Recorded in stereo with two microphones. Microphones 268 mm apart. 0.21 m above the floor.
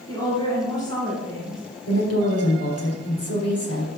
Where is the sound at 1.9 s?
70° left (ahead or behind), 4 m.